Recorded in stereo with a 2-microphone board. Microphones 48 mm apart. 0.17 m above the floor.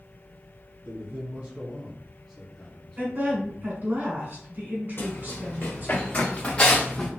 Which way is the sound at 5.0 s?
50° left (ahead or behind).